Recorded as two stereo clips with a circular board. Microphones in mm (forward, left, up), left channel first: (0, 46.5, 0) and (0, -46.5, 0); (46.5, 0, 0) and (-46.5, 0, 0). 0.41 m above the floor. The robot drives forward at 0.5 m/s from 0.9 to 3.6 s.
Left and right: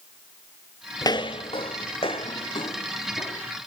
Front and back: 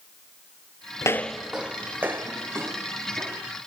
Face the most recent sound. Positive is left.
turn(degrees=120)